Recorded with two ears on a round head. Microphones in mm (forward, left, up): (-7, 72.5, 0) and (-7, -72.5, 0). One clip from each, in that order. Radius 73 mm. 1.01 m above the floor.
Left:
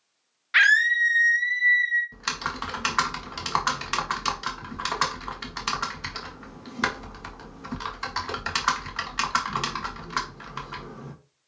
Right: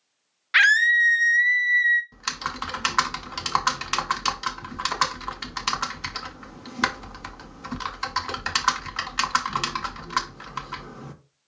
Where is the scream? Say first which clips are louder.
Right 2 dB; 15° right (ahead or behind), 0.8 m; by 2.0 s 45° right (ahead or behind), 1.1 m.